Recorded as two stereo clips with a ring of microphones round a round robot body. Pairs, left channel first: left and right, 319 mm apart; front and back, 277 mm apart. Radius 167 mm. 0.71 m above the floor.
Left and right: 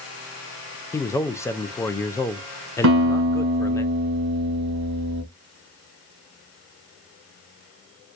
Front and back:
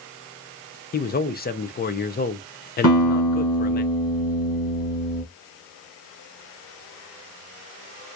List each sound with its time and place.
0.9 s a man speaking: 15° left, 0.5 m
2.8 s a guitar: 50° right, 2.5 m